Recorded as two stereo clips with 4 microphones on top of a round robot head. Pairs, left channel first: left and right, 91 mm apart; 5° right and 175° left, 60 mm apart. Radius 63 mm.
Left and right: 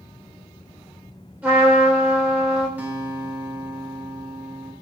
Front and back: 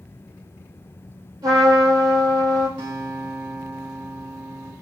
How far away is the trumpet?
About 4 m.